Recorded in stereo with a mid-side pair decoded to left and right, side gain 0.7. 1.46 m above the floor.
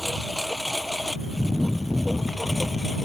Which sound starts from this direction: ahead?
A lawn mower, at 0.0 s.